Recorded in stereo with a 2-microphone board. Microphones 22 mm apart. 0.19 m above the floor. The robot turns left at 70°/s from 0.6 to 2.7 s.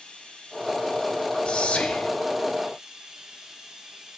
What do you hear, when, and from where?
0.0 s running water: 115° left, 8 m; by 4.2 s 30° right, 8 m
1.4 s whispering: 125° left, 2.5 m; by 2.1 s 80° left, 2.5 m